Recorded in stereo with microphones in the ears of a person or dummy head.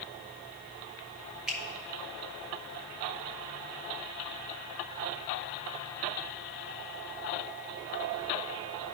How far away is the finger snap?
About 1.3 m.